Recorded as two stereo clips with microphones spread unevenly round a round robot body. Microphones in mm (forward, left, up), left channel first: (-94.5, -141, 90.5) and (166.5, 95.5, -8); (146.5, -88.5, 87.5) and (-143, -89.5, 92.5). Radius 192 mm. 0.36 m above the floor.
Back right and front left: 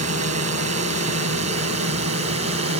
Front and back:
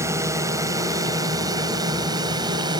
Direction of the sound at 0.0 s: 100° left.